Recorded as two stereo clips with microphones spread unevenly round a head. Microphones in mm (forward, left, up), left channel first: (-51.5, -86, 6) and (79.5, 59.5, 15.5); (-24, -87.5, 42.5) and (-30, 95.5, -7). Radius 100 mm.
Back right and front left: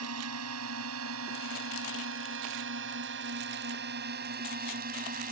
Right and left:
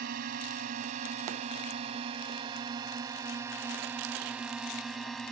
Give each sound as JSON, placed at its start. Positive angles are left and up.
{"t": 0.0, "sound": "a drone", "azimuth_deg": 45}